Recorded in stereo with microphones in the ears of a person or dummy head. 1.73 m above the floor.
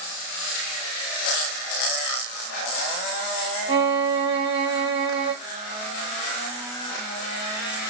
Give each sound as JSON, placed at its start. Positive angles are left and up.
{"t": 3.7, "sound": "a violin", "side_deg": -30, "distance_m": 1.2}